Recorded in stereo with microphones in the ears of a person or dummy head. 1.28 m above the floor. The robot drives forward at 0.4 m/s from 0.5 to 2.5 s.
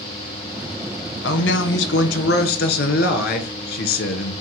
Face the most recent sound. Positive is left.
turn(degrees=55)  # may be behind; listen again after turning